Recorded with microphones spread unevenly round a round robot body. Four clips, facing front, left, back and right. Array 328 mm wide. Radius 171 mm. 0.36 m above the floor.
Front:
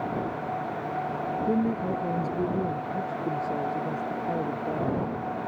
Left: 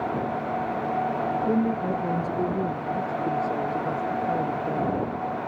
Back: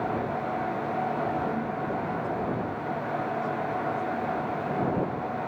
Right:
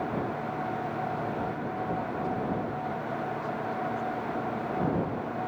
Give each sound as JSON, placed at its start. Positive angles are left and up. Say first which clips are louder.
{"t": 1.5, "sound": "a woman speaking", "louder": "left 8 dB, front 4 dB", "azimuth_deg": 60}